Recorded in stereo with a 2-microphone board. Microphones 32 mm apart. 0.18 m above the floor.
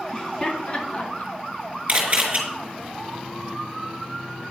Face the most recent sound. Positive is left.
turn(degrees=-40)  # may be behind; listen again after turning